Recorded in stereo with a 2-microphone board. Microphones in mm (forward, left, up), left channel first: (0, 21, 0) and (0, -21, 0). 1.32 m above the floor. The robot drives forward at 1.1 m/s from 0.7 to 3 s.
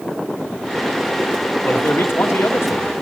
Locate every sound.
1.6 s a man speaking: 55° left (ahead or behind), 2 m; by 2.9 s 80° left, 1.8 m